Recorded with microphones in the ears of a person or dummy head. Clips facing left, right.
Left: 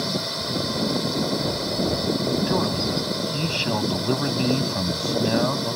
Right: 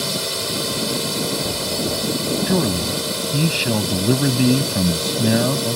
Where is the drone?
40° right (ahead or behind).